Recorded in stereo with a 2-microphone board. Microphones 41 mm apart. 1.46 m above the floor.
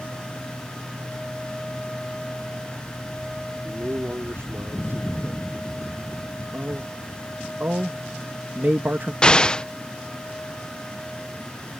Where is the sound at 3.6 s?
65° right (ahead or behind).